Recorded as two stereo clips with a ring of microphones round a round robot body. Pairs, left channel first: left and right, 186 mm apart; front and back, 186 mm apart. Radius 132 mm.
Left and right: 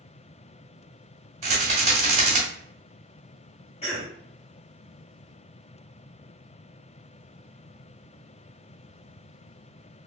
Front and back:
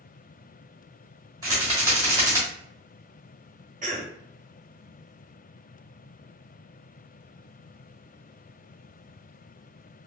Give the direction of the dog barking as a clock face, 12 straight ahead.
No dog barking in this recording.